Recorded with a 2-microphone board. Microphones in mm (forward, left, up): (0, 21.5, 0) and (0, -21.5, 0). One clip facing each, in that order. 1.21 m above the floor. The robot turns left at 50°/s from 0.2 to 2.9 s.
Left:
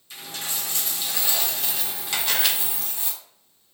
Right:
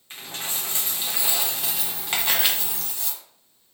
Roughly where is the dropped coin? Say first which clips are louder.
Right 1 dB; right.